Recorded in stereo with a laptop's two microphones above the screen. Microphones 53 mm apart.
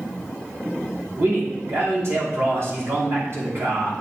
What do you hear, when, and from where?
1.2 s a man speaking: 55° right (ahead or behind), 3 m